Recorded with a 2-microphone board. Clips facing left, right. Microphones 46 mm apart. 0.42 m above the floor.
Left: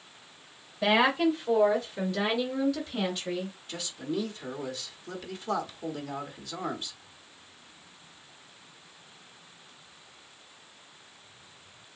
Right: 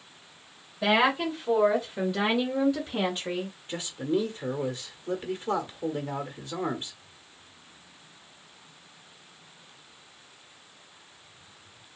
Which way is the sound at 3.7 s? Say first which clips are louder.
Right 6 dB; 30° right (ahead or behind).